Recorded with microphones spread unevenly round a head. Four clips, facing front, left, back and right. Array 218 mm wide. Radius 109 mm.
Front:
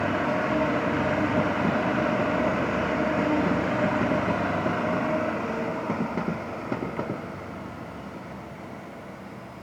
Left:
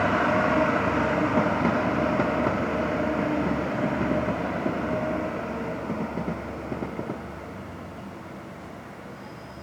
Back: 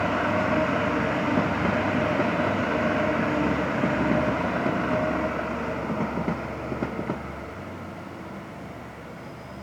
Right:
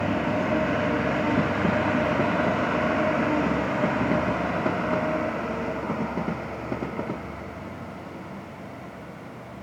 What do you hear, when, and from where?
Only background noise.